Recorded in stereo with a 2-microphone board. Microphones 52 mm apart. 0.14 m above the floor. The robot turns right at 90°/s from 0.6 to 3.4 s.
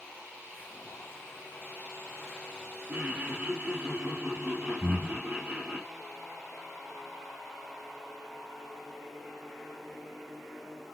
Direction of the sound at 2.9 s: 145° right.